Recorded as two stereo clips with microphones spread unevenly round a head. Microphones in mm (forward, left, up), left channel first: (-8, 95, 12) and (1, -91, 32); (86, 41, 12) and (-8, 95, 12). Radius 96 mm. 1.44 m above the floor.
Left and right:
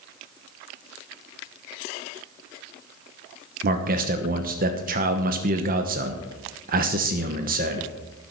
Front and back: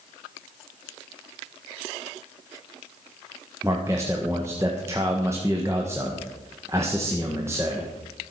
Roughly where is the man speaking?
Behind right.